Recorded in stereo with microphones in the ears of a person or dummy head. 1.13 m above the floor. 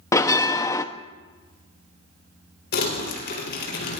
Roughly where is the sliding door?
I don't hear a sliding door.